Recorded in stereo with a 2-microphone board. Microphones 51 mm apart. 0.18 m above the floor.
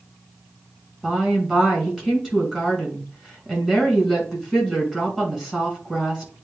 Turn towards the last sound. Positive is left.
turn(degrees=-10)  # may be behind; listen again after turning